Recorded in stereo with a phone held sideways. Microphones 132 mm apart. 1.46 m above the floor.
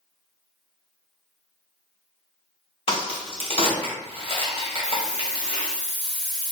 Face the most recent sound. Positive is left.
turn(degrees=5)  # may be behind; listen again after turning